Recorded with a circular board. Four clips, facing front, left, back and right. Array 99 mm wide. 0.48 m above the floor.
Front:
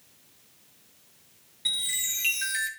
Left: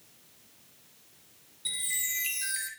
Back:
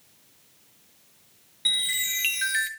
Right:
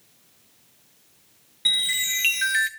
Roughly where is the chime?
Right.